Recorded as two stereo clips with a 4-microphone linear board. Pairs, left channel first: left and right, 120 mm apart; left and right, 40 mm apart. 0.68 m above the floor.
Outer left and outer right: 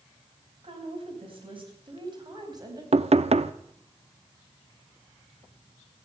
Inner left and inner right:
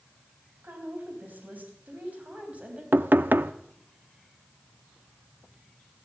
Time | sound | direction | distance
0.6 | a woman speaking | 55° right (ahead or behind) | 3.5 m
2.9 | knocking | 65° right (ahead or behind) | 0.5 m